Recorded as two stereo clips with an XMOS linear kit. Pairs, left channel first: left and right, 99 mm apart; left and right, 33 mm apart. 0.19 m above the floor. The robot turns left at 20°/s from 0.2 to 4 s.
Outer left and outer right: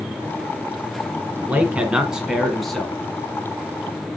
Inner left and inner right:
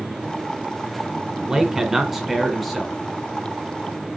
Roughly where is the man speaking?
Centre.